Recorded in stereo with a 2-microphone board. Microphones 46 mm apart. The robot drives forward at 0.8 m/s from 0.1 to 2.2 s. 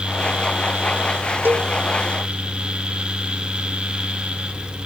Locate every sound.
1.4 s a cowbell: 50° right (ahead or behind); by 1.7 s 45° right (ahead or behind)